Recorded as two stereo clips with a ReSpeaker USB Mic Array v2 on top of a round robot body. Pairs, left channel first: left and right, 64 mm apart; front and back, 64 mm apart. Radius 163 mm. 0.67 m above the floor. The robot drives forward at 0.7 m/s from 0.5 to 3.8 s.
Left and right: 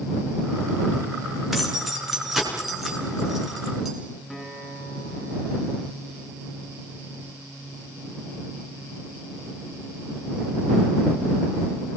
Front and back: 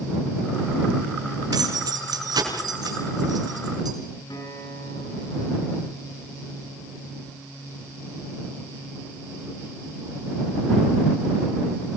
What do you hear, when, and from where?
1.5 s keys jangling: 175° right, 6 m
4.3 s a guitar: straight ahead, 8 m